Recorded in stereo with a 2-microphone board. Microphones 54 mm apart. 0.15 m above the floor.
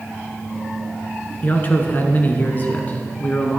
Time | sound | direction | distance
1.4 | a man speaking | 35° left (ahead or behind) | 1.8 m